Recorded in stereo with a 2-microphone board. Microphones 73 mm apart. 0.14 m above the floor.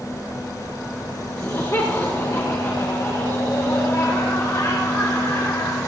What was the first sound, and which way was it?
Laughter, 40° left (ahead or behind).